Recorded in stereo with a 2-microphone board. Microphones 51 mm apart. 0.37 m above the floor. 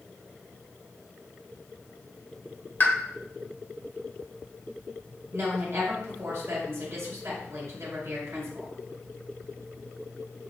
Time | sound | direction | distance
2.8 | a pop | 40° left (ahead or behind) | 1.1 m
5.3 | a woman speaking | 60° right (ahead or behind) | 2 m